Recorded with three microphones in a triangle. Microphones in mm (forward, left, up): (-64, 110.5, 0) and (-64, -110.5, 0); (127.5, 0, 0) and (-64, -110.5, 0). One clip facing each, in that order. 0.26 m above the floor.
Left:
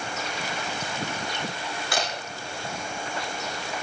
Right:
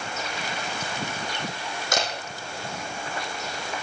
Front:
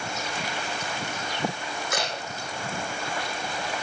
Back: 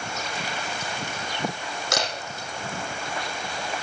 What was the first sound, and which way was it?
A camera shutter, 140° right.